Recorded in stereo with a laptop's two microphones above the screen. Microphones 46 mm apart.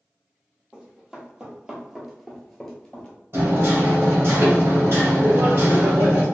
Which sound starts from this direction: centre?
Running footsteps, at 0.7 s.